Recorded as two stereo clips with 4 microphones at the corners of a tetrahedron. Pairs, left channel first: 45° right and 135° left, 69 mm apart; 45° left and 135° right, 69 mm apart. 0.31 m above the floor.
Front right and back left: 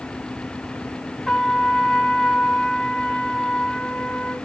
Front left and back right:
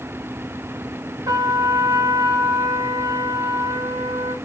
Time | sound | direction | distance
1.3 | a trumpet | 125° right | 0.8 m